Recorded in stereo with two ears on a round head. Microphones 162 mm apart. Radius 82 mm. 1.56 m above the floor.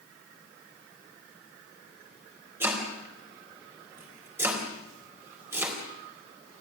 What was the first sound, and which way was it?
Chopping, 15° right (ahead or behind).